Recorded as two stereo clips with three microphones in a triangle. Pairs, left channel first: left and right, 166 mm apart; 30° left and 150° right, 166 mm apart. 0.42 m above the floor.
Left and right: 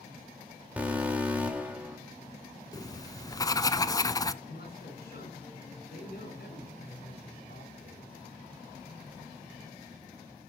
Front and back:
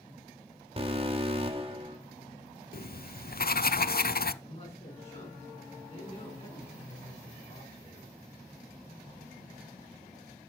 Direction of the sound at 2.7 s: 25° left.